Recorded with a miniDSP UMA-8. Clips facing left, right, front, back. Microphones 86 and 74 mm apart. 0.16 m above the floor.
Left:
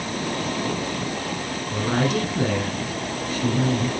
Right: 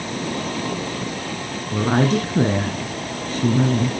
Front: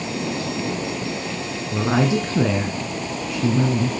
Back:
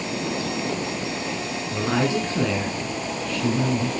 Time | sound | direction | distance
1.7 | a woman speaking | 60° right | 1.5 m